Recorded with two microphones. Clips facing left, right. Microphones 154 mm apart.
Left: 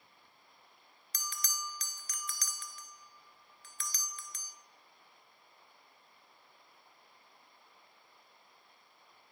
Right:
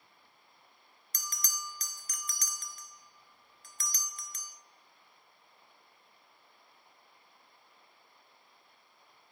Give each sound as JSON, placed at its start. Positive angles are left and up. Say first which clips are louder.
{"t": 1.1, "sound": "a bell", "louder": "even", "side_deg": -40, "distance_m": 0.6}